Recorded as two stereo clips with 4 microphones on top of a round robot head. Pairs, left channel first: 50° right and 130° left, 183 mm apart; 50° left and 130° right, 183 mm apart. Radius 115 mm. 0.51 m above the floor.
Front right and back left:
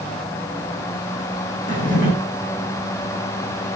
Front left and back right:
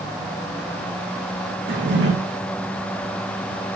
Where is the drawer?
100° right, 8 m.